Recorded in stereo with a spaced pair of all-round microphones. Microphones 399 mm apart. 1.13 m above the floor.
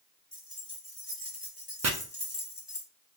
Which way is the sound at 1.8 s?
40° right (ahead or behind).